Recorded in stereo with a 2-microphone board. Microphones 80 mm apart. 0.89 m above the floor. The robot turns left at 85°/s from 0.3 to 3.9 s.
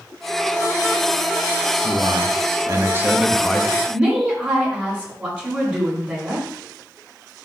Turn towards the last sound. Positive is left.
turn(degrees=-20)  # may be behind; listen again after turning